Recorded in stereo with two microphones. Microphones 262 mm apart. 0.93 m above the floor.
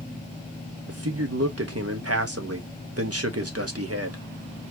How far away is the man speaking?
About 1.3 m.